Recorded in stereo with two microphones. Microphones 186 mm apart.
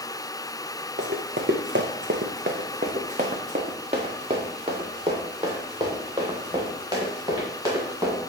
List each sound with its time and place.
1.0 s running footsteps: 65° right (ahead or behind), 1.3 m; by 8.2 s 15° right (ahead or behind), 4.5 m